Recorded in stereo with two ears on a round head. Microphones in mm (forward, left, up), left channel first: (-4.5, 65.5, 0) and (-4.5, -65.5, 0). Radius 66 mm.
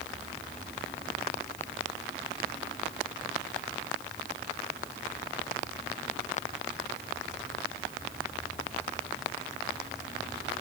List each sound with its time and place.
Only background noise.